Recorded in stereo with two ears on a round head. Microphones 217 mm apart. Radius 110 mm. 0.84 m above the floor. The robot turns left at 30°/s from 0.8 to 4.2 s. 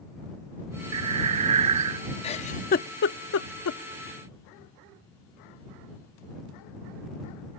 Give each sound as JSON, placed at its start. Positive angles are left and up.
{"t": 0.9, "sound": "breathing", "azimuth_deg": -65}
{"t": 2.2, "sound": "a giggle", "side_deg": 25}